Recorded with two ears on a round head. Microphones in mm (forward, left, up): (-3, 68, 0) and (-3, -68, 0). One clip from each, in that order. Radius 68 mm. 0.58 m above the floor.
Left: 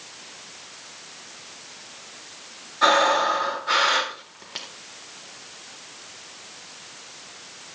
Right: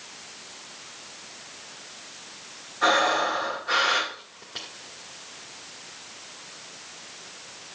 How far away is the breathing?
About 2 m.